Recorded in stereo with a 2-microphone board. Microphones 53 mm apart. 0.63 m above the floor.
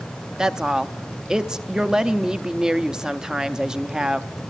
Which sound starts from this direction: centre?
A woman speaking, at 0.4 s.